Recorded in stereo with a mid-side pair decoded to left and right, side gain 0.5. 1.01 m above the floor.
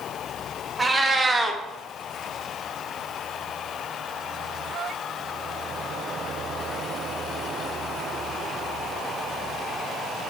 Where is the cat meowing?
20° right, 0.5 m.